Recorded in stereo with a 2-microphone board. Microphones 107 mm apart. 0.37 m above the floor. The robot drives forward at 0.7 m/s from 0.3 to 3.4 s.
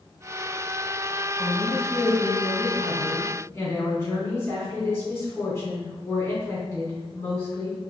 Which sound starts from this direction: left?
A woman speaking, at 1.4 s.